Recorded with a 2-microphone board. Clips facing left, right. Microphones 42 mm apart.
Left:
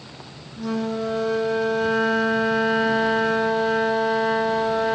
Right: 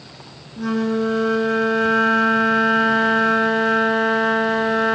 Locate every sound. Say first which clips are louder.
0.6 s a flute: right 5 dB; 60° right (ahead or behind), 0.9 m